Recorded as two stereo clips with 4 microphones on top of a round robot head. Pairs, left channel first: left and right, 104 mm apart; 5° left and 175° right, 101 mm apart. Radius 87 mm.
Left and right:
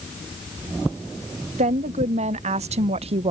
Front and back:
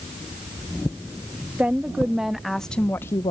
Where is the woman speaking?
95° right; by 3.3 s 50° right.